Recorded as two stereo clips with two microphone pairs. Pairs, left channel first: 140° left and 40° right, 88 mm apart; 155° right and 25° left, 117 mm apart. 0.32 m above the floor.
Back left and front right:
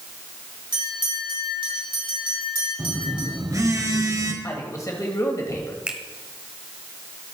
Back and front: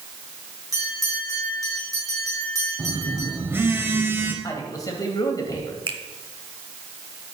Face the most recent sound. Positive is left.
turn(degrees=30)